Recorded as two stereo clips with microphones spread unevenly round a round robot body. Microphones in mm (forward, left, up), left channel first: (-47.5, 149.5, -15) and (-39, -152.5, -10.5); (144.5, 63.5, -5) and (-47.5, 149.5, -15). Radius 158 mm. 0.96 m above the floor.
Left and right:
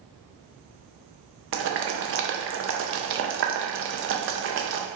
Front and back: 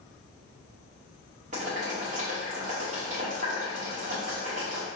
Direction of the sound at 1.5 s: 140° right.